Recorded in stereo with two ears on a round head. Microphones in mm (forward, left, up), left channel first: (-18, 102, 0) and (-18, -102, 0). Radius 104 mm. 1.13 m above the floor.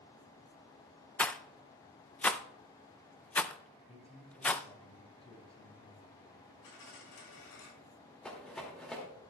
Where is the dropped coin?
80° left, 6.5 m.